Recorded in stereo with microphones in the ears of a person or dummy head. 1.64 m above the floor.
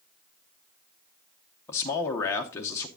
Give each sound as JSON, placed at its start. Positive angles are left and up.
{"t": 1.7, "sound": "a man speaking", "side_deg": 15, "distance_m": 0.9}